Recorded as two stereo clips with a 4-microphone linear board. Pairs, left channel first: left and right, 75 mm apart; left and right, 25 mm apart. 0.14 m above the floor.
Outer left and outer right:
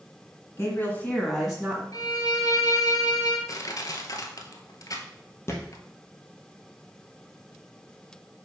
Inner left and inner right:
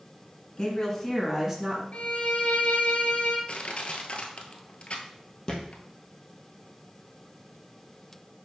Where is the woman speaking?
35° left (ahead or behind), 1.7 m; by 1.8 s 15° right (ahead or behind), 1.5 m.